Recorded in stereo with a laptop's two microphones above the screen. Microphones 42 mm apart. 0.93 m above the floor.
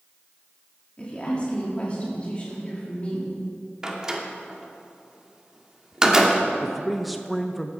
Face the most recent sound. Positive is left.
turn(degrees=0)  # may be behind; listen again after turning